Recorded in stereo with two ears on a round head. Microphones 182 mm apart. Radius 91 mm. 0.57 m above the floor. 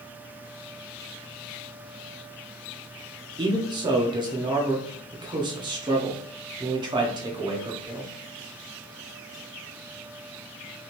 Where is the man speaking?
20° right (ahead or behind), 0.6 m.